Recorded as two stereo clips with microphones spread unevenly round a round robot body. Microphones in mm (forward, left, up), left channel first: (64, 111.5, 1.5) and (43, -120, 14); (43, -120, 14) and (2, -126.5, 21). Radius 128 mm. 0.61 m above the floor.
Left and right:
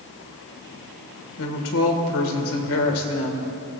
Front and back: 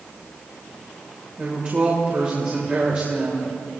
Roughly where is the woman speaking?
Behind left.